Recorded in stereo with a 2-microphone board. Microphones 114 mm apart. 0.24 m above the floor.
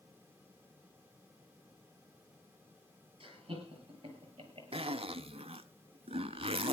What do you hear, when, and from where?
3.2 s laughter: 50° right (ahead or behind), 6.5 m; by 4.9 s 45° right (ahead or behind), 5 m
4.7 s a zipper: 60° right (ahead or behind), 0.5 m